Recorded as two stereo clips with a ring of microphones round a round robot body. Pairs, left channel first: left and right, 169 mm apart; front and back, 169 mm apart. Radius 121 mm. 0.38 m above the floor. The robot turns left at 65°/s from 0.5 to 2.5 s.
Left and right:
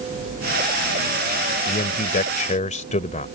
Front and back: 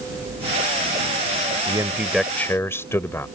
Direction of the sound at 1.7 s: 125° left.